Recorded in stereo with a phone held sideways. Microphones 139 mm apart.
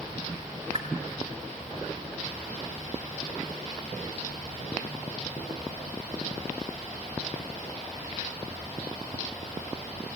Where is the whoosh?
40° right (ahead or behind), 1.3 m.